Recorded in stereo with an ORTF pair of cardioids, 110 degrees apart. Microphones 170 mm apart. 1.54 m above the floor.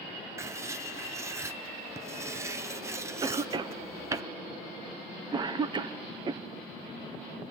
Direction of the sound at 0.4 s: 15° right.